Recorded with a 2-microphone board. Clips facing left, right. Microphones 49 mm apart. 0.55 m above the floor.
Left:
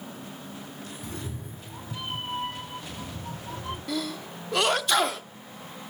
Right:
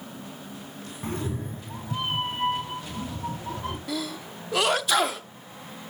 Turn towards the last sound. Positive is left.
turn(degrees=0)  # may be behind; listen again after turning